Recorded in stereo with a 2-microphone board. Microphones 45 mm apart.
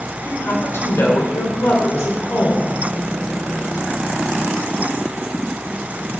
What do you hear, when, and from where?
0.2 s a woman speaking: 65° left (ahead or behind), 3 m